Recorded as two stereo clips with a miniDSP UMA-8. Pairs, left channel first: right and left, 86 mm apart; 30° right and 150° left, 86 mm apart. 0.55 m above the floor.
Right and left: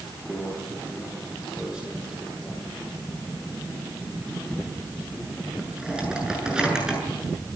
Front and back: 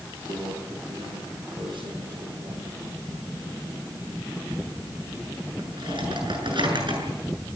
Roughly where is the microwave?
Behind.